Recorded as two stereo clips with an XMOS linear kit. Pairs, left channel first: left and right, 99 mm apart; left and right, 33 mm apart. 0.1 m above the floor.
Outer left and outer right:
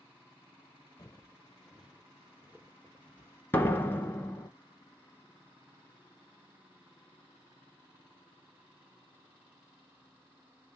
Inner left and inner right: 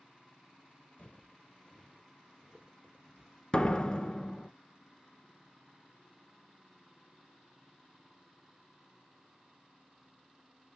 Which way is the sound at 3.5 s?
20° left (ahead or behind).